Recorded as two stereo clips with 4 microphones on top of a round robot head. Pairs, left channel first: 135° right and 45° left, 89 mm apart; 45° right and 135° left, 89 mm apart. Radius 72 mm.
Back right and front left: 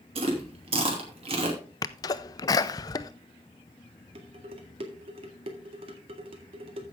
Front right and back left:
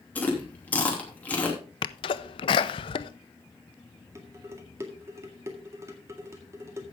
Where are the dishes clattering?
75° left, 1.9 m.